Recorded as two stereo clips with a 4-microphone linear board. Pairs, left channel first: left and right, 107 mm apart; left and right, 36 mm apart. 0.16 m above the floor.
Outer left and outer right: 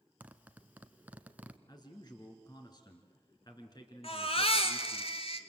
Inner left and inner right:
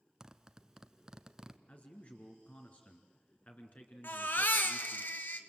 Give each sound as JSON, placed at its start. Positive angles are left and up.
{"t": 0.2, "sound": "a zipper", "side_deg": -15, "distance_m": 1.0}
{"t": 1.7, "sound": "a man speaking", "side_deg": 40, "distance_m": 2.5}
{"t": 4.0, "sound": "a baby crying", "side_deg": 65, "distance_m": 1.8}